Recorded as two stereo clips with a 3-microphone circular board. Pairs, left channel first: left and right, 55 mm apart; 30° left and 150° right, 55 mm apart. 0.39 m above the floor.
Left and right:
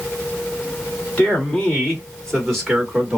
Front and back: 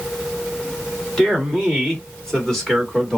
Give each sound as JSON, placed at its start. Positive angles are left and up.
{"t": 1.2, "sound": "a man speaking", "azimuth_deg": 100, "distance_m": 1.5}